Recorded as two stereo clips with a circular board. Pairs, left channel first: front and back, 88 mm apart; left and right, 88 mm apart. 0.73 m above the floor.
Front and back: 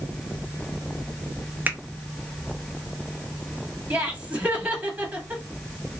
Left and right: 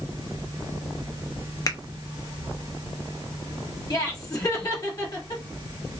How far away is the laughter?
About 1.4 m.